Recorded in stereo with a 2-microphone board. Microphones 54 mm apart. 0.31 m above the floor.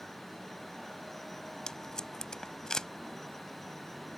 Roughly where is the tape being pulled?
Centre.